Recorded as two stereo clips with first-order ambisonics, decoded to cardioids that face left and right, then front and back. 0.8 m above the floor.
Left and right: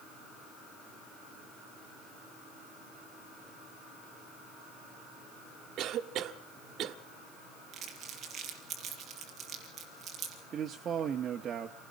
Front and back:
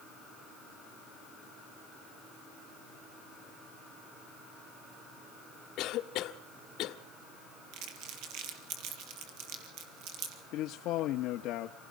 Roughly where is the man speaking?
Ahead right.